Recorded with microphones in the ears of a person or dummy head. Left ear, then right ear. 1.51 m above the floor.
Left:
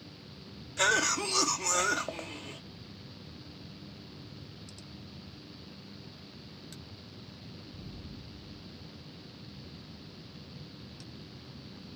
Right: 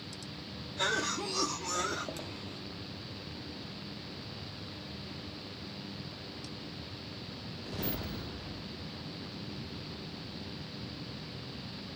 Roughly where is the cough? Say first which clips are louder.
Left 5 dB; left.